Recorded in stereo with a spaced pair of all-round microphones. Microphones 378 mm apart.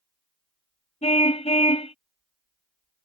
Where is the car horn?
15° left (ahead or behind).